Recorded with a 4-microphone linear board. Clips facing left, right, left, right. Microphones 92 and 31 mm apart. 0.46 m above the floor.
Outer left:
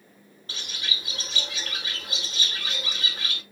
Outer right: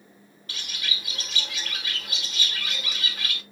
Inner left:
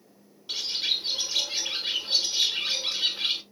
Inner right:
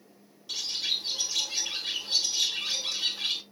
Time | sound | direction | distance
0.5 | a bird | 30° left (ahead or behind) | 1.1 m